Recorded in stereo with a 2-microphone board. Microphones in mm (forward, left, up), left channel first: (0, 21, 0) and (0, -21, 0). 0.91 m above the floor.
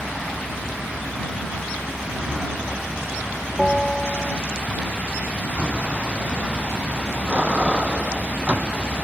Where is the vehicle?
10° right (ahead or behind); by 9.1 s 35° right (ahead or behind).